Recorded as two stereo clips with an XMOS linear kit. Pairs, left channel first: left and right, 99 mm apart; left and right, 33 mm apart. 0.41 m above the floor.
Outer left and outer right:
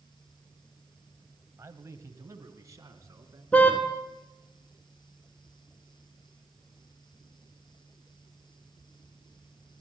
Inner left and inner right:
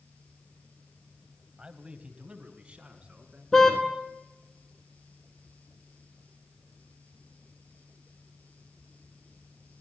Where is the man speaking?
30° right (ahead or behind), 2 m; by 3.4 s 35° right (ahead or behind), 4 m.